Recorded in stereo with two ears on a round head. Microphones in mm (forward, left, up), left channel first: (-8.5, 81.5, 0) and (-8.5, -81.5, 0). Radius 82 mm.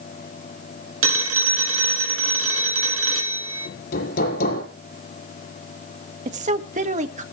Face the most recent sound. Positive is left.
turn(degrees=-40)  # may be behind; listen again after turning